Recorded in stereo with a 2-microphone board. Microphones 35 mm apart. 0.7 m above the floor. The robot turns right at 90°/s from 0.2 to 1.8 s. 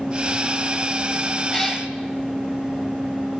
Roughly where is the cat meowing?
Left.